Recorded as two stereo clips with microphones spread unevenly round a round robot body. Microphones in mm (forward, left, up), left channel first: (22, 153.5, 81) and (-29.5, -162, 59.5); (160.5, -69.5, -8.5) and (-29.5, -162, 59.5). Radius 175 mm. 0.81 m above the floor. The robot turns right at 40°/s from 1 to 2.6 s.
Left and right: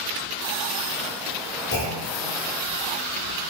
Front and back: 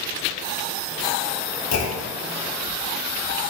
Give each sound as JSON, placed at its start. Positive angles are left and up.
{"t": 1.7, "sound": "a clunk", "azimuth_deg": 20, "distance_m": 0.9}